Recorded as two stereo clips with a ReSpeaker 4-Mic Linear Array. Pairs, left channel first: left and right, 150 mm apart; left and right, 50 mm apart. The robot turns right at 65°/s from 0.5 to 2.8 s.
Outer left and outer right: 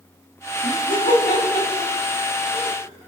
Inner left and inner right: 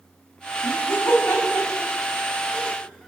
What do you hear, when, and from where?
0.6 s laughter: 55° left (ahead or behind), 3 m; by 3.1 s 20° right (ahead or behind), 3 m